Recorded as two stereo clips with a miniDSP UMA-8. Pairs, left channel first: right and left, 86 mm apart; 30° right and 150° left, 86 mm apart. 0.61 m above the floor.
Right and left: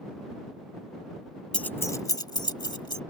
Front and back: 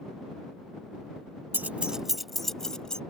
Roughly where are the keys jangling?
Behind.